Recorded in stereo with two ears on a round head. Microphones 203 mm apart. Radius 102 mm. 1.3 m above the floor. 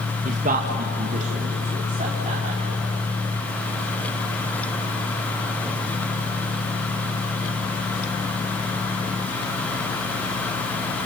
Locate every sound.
0.2 s a man speaking: 35° right (ahead or behind), 1.4 m; by 2.9 s 30° right (ahead or behind), 4.5 m